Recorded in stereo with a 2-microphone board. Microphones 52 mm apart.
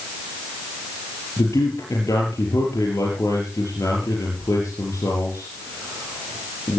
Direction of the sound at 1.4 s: 80° left.